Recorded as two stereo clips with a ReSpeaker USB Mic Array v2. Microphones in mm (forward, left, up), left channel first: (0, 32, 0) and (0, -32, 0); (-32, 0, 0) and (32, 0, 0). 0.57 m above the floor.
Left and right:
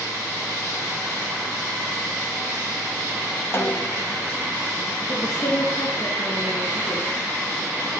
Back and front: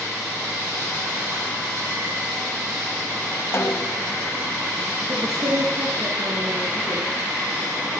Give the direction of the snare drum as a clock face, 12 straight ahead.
7 o'clock.